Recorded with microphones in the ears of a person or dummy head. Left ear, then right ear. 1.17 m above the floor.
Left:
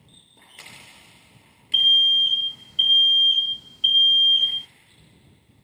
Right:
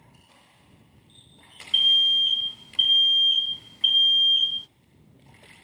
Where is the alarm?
5° right (ahead or behind).